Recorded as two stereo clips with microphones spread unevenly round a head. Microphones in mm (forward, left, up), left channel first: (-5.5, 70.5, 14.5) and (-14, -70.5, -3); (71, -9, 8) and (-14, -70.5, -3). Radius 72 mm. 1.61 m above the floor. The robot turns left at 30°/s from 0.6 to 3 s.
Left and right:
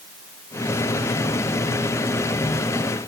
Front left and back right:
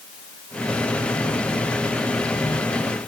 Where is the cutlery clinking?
I don't hear cutlery clinking.